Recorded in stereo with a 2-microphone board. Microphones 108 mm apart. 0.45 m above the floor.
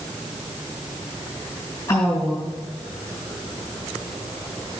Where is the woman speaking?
30° left (ahead or behind), 3 m.